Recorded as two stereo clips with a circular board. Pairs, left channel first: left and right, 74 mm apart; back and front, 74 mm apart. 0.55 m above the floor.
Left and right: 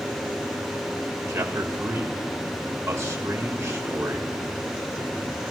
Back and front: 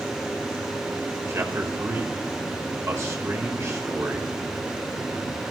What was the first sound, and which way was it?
A man speaking, 45° right.